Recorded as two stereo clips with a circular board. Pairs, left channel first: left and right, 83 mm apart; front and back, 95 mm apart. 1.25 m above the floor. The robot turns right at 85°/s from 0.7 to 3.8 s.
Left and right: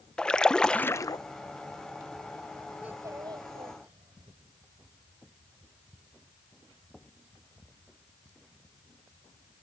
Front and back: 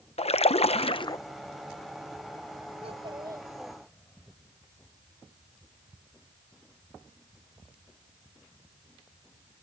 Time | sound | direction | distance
0.2 | a splash | 10° left | ?
2.8 | a child speaking | 165° right | ?